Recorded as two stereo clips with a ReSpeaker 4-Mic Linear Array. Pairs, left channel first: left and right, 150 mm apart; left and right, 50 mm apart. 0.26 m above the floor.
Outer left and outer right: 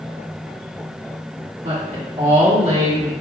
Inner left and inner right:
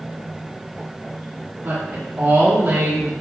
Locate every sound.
1.6 s a woman speaking: 55° right (ahead or behind), 2.0 m